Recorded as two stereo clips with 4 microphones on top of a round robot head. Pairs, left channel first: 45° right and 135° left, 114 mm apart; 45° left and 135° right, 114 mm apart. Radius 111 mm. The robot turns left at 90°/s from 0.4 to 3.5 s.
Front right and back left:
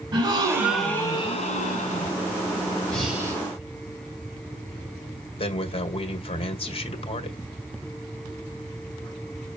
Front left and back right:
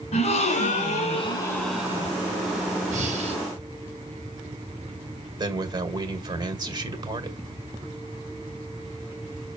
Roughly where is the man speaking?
Right.